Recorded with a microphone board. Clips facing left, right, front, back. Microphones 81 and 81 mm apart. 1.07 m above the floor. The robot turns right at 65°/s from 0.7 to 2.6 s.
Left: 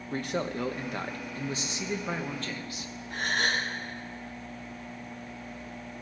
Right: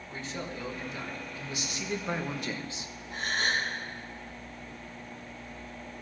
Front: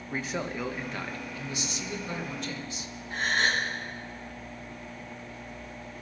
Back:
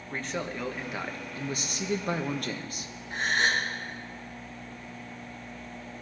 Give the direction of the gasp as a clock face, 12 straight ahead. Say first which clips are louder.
Left 1 dB, even; 8 o'clock.